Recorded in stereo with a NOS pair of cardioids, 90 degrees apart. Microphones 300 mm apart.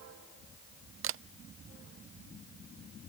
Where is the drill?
No drill in this recording.